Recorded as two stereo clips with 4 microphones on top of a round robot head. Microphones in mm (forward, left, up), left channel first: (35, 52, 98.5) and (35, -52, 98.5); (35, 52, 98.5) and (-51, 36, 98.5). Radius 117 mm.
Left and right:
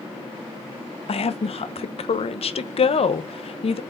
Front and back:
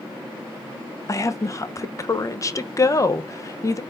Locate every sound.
1.1 s a woman speaking: 65° left, 0.7 m